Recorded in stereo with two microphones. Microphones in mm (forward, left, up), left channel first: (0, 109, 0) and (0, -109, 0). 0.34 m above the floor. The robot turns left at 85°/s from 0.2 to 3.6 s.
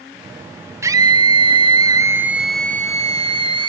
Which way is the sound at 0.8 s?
10° right (ahead or behind).